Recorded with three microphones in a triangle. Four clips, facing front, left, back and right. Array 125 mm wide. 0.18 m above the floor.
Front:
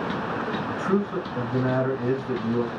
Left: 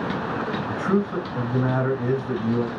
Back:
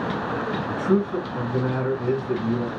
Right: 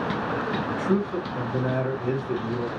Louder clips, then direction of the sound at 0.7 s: Left 2 dB, back 4 dB; 55° left.